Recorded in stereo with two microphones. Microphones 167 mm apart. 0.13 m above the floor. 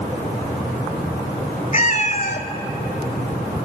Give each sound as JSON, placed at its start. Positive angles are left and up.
{"t": 1.7, "sound": "a cat meowing", "side_deg": 50, "distance_m": 0.9}